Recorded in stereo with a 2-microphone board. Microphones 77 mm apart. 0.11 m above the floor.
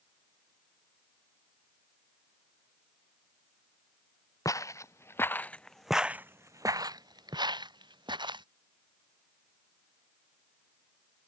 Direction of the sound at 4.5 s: 45° left (ahead or behind).